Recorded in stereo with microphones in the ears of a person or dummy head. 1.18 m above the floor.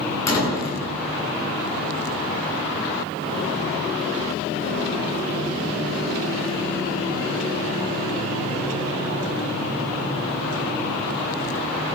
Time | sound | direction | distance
0.3 | a door slam | 30° left (ahead or behind) | 7.5 m